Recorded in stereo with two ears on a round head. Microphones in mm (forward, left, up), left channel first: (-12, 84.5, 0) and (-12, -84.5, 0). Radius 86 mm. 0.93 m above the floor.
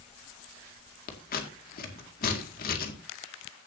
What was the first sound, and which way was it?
Scissors, 45° left (ahead or behind).